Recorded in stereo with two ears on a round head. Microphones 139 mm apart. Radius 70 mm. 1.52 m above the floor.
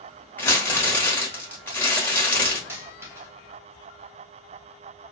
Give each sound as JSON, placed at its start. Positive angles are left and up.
{"t": 0.4, "sound": "crumpling", "side_deg": 10, "distance_m": 1.3}
{"t": 2.7, "sound": "a dropped coin", "side_deg": -15, "distance_m": 1.0}